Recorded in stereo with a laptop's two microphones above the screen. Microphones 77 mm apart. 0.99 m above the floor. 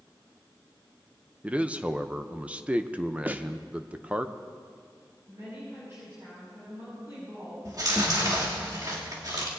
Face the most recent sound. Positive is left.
turn(degrees=-50)  # may be behind; listen again after turning